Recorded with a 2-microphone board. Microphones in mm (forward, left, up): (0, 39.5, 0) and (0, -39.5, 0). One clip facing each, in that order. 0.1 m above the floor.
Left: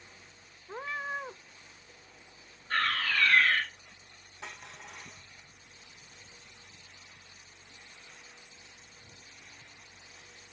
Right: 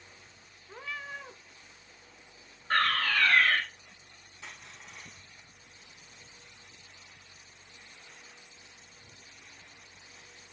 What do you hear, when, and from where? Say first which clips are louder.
0.7 s a cat meowing: left 5 dB; 35° left (ahead or behind), 0.9 m
2.7 s a fire alarm: right 3 dB; 50° right (ahead or behind), 7 m
4.4 s crushing: left 3 dB; 65° left (ahead or behind), 6.5 m